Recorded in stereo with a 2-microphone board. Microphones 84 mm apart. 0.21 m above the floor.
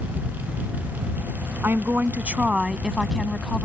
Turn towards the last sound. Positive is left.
turn(degrees=10)  # may be behind; listen again after turning